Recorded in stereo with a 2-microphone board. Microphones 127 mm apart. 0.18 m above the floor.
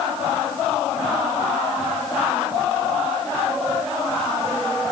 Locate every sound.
Only background noise.